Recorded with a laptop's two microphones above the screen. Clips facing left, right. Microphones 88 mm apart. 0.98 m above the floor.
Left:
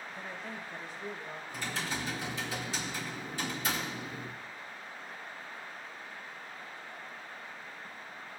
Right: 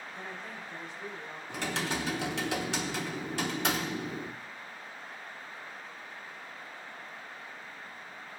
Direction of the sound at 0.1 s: 15° right (ahead or behind).